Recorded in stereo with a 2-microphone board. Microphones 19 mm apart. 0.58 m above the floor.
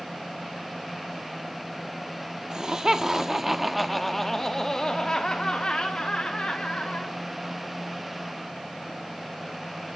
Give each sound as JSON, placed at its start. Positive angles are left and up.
{"t": 2.5, "sound": "laughter", "side_deg": -35, "distance_m": 1.2}